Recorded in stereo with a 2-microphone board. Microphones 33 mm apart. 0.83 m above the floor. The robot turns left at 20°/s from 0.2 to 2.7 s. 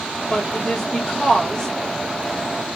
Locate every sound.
0.3 s a woman speaking: 35° left (ahead or behind), 1.5 m; by 1.7 s 5° left (ahead or behind), 1.5 m